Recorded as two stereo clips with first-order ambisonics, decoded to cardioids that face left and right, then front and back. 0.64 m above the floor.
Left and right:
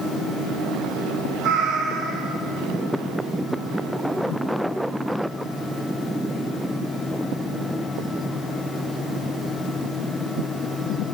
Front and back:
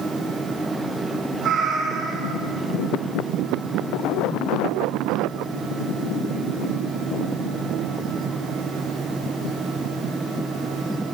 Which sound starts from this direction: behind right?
A cat meowing, at 1.4 s.